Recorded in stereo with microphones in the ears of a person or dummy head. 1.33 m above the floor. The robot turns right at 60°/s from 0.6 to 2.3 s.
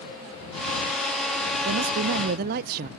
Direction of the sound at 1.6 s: 105° right.